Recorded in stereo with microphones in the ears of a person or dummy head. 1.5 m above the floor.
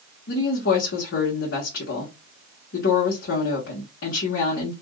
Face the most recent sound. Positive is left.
turn(degrees=75)  # may be behind; listen again after turning